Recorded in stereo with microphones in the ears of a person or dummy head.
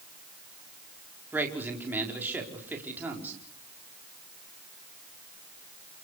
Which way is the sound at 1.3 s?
10° right (ahead or behind).